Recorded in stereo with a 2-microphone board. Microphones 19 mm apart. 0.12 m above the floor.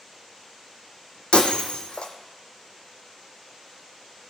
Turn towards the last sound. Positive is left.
turn(degrees=55)  # may be behind; listen again after turning